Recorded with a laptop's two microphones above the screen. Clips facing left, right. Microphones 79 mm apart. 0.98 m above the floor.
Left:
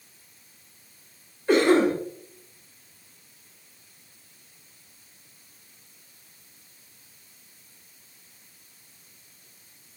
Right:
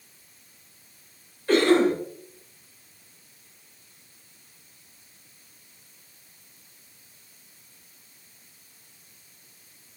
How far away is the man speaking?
I don't hear a man speaking.